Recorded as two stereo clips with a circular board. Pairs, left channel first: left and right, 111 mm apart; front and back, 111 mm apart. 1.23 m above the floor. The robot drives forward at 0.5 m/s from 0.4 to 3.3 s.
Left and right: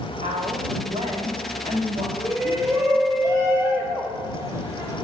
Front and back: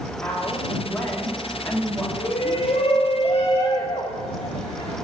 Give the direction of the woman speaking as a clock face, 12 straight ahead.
2 o'clock.